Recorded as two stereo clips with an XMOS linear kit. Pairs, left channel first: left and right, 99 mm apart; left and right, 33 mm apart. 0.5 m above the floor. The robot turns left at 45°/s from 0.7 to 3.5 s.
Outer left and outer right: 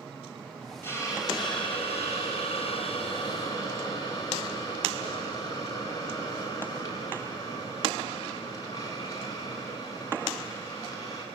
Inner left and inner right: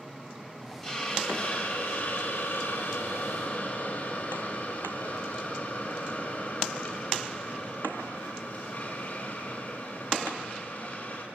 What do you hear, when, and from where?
0.8 s a hiss: 155° left, 5.5 m; by 11.2 s 35° left, 5.5 m